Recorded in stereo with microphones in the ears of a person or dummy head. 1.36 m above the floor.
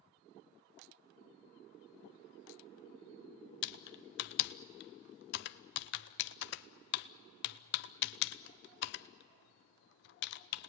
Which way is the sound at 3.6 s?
65° left (ahead or behind).